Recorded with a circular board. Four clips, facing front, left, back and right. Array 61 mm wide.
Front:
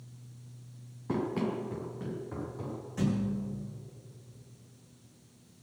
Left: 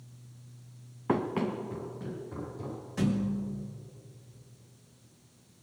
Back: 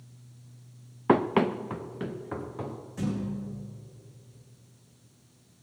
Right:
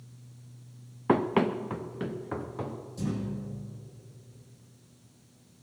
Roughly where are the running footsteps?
Behind.